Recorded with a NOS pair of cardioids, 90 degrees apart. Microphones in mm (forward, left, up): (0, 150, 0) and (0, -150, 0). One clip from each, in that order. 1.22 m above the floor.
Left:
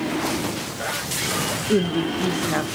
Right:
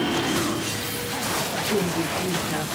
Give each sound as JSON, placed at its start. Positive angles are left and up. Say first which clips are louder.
{"t": 1.7, "sound": "a woman speaking", "louder": "left 4 dB", "azimuth_deg": 35, "distance_m": 0.8}